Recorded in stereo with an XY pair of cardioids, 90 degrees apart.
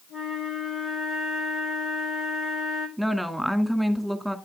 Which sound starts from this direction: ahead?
A woman speaking, at 3.0 s.